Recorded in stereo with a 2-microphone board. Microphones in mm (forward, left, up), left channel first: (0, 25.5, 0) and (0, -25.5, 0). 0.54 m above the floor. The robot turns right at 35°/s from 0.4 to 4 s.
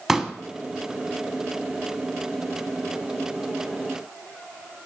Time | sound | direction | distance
0.1 | a pop | 5° right (ahead or behind) | 0.6 m